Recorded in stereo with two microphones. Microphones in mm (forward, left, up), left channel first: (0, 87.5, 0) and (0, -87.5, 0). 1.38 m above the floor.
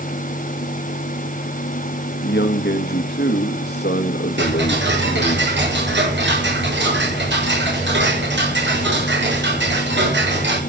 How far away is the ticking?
About 6.5 m.